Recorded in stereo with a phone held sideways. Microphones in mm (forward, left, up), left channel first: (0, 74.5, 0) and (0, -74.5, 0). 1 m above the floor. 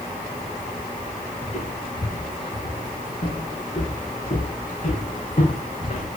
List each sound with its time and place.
1.4 s footsteps: 55° left (ahead or behind), 6.5 m; by 6.1 s 70° left (ahead or behind), 2.5 m